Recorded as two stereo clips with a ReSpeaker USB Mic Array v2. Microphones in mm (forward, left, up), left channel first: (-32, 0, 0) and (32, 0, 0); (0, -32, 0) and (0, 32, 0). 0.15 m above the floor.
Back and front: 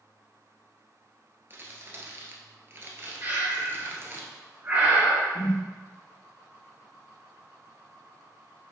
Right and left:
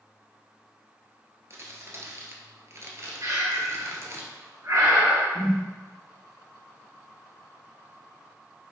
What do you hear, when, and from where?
1.5 s crumpling: 50° left, 1.4 m
3.2 s breathing: 60° left, 2.5 m
5.3 s a whoosh: 175° left, 0.9 m